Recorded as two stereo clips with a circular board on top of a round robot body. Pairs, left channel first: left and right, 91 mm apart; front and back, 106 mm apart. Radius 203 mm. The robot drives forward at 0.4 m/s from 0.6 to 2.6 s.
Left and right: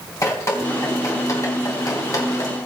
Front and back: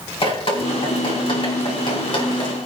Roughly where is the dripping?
Ahead left.